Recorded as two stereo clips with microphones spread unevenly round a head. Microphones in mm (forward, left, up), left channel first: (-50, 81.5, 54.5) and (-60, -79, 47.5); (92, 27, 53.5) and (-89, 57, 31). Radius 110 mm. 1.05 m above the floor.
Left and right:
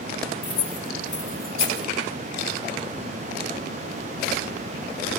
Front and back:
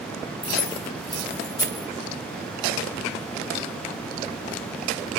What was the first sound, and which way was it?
Keys jangling, 60° left.